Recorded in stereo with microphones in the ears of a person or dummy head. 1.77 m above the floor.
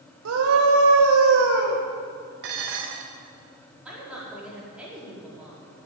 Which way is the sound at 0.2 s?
90° right.